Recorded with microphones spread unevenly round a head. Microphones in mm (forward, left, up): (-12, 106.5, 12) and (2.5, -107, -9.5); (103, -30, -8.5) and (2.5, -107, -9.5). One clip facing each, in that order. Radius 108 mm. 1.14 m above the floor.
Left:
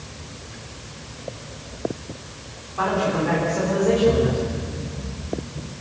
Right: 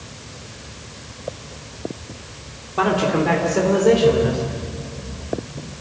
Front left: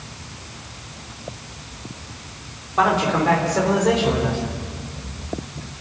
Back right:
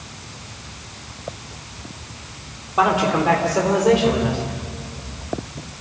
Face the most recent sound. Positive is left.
turn(degrees=-65)